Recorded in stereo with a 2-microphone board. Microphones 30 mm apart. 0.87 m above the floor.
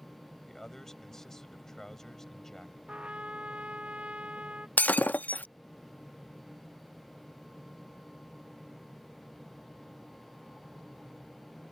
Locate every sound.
0.5 s a man speaking: 15° left (ahead or behind)
2.9 s a trumpet: 45° right (ahead or behind)
4.8 s breaking glass: 80° left